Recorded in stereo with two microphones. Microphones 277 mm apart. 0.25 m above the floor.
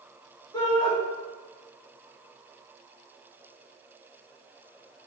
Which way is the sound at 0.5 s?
15° left (ahead or behind).